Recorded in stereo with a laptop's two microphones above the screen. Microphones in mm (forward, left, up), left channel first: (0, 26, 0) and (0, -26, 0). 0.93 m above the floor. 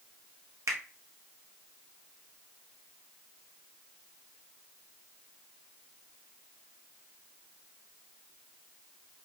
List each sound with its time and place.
0.7 s a finger snap: 75° right (ahead or behind), 0.8 m